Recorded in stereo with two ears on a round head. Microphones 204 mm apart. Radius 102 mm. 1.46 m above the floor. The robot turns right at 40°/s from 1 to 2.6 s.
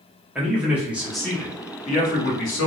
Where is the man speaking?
5° right, 1.0 m; by 2.7 s 60° left, 1.0 m.